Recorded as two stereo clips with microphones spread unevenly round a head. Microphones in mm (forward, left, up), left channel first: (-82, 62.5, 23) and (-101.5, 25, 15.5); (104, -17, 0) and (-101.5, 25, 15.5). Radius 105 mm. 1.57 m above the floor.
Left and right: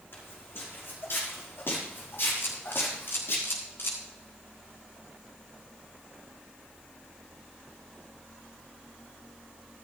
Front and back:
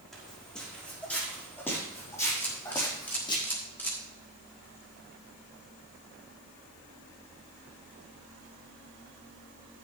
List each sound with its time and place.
0.1 s footsteps: 75° left, 6 m; by 3.4 s 55° left, 4.5 m
2.4 s a camera shutter: 70° left, 4 m